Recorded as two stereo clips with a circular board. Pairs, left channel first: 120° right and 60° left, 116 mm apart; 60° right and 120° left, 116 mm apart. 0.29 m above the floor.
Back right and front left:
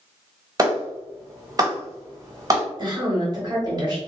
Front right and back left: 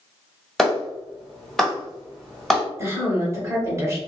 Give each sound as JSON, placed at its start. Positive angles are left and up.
{"t": 0.6, "sound": "a clap", "azimuth_deg": 25, "distance_m": 1.2}
{"t": 2.8, "sound": "a woman speaking", "azimuth_deg": 75, "distance_m": 1.3}